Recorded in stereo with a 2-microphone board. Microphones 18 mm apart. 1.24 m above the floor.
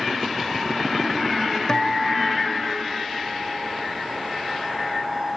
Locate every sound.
1.7 s a guitar: 30° left (ahead or behind), 0.8 m